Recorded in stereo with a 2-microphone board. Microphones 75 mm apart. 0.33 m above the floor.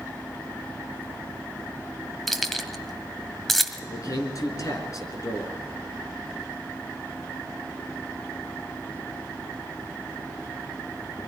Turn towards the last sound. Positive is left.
turn(degrees=45)  # may be behind; listen again after turning